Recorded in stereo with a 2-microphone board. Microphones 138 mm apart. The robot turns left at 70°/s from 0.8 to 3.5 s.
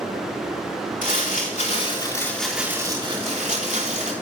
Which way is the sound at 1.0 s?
100° left.